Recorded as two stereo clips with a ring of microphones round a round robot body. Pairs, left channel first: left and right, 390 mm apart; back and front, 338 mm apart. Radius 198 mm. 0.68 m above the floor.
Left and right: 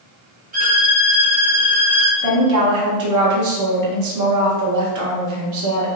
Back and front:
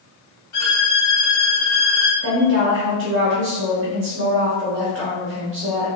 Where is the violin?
155° right, 1.2 m.